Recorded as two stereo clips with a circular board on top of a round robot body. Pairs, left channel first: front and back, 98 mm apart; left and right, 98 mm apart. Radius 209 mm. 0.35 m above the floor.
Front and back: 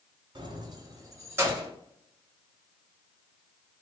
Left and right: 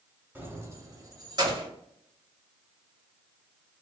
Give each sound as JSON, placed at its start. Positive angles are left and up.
{"t": 0.3, "sound": "keys jangling", "azimuth_deg": -160, "distance_m": 1.1}